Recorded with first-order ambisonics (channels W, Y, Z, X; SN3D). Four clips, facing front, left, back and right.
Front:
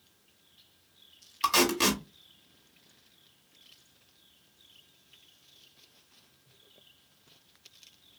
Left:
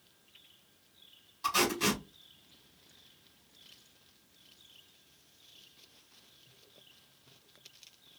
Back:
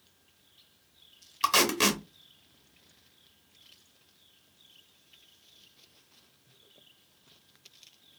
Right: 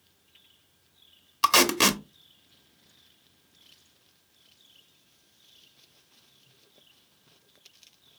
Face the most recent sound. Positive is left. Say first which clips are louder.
# right 9 dB, even
turn(degrees=-100)